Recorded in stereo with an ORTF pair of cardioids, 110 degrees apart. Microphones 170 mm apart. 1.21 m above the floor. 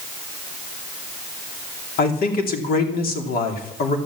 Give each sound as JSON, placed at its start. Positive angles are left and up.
{"t": 2.0, "sound": "a man speaking", "azimuth_deg": 60, "distance_m": 2.5}